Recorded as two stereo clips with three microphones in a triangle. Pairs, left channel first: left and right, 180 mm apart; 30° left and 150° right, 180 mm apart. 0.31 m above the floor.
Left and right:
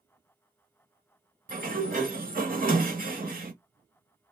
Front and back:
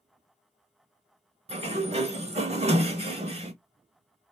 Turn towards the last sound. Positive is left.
turn(degrees=-105)